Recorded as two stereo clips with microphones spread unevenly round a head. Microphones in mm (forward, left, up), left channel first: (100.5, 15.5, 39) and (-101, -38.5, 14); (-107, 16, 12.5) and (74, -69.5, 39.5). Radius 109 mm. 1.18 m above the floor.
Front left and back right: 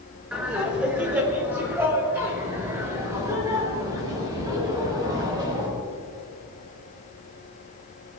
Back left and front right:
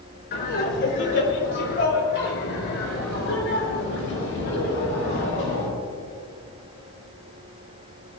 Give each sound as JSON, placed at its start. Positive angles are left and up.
{"t": 0.3, "sound": "laughter", "azimuth_deg": 110, "distance_m": 4.0}